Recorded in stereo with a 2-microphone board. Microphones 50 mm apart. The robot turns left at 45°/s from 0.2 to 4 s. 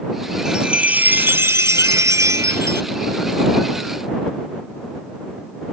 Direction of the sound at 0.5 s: 15° right.